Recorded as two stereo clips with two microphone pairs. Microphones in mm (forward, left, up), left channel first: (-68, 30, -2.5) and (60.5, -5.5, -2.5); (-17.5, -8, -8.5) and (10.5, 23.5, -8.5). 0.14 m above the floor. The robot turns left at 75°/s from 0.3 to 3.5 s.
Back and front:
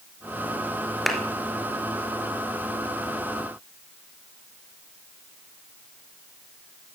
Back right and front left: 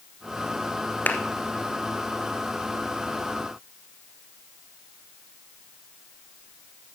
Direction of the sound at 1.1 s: 105° right.